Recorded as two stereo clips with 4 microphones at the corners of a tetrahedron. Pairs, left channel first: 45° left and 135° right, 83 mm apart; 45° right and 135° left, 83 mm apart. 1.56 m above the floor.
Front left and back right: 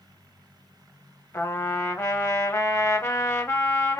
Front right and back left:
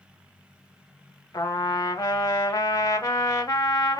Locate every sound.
1.3 s a trumpet: 5° right, 0.8 m